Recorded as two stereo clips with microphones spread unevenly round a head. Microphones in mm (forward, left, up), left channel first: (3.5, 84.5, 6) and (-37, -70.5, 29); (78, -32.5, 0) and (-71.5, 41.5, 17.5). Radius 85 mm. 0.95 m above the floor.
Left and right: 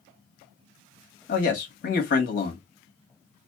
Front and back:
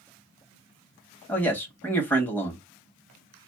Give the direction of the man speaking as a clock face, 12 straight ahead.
10 o'clock.